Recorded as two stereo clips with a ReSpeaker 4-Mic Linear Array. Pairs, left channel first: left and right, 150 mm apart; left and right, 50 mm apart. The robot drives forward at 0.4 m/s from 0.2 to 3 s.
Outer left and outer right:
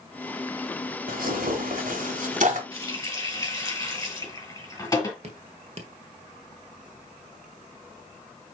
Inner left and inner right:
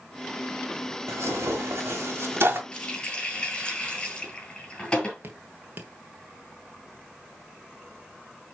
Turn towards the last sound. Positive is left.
turn(degrees=-45)  # may be behind; listen again after turning